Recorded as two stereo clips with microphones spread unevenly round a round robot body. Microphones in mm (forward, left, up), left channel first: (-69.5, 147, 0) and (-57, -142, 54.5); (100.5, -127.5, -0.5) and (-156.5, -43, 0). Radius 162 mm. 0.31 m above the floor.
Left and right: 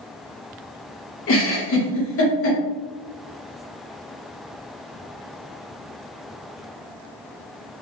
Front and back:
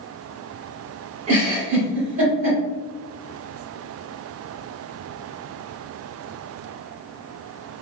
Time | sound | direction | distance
1.3 | a giggle | 100° left | 1.1 m